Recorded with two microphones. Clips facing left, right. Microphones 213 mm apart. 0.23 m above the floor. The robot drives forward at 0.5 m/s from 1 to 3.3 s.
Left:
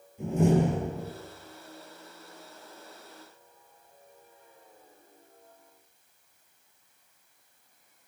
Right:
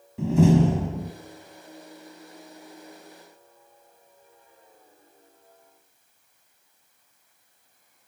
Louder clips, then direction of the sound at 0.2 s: Right 5 dB; 70° right (ahead or behind).